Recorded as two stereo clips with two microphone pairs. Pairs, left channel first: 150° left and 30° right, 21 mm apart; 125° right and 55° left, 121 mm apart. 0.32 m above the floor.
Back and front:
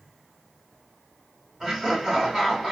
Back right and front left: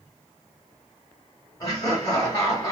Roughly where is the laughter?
Right.